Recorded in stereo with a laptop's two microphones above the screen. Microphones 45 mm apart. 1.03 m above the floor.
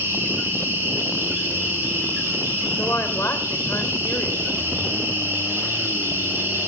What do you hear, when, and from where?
0.0 s an insect: 60° right (ahead or behind), 9 m
2.8 s a woman speaking: 65° left (ahead or behind), 3.5 m